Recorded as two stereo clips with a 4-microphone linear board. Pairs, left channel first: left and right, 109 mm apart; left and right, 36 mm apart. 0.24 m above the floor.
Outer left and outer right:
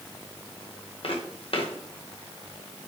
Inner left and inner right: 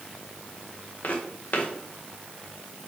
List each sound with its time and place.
1.0 s footsteps: 55° left (ahead or behind), 2.5 m